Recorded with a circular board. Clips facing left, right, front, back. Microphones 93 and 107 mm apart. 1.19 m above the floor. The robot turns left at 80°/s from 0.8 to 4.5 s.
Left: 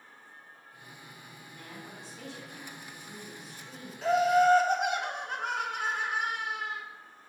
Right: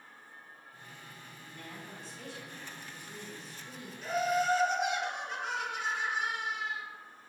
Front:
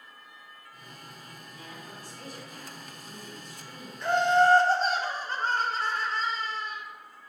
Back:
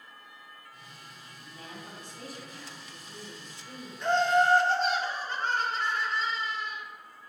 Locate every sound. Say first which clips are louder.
1.4 s a woman speaking: even, back 2 dB; 165° left, 3 m; by 3.9 s 35° right, 3 m
4.0 s laughter: left 7 dB, front 2 dB; 90° left, 1.1 m; by 6.8 s 50° left, 1.1 m